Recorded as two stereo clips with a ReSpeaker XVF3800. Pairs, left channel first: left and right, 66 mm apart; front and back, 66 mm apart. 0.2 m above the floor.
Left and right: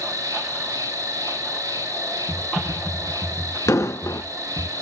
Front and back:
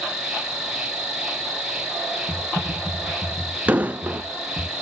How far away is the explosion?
About 0.8 m.